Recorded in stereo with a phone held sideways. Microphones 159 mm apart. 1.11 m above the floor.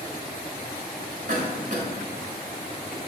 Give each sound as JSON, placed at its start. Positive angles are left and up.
{"t": 1.3, "sound": "a cough", "side_deg": -50, "distance_m": 3.0}